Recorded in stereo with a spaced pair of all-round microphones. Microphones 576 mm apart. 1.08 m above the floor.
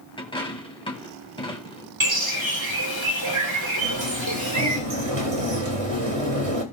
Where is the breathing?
I don't hear breathing.